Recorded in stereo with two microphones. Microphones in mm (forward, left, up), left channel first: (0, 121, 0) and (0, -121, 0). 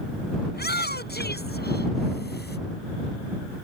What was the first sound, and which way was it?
A shout, 40° left (ahead or behind).